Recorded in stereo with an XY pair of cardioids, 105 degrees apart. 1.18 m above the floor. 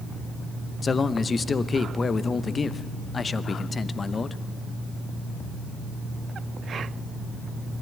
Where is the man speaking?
30° left, 0.8 m.